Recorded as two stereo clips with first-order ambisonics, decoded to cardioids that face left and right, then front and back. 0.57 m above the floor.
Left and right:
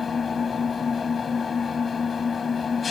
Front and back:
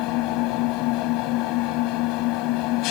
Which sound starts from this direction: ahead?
An engine running, at 0.0 s.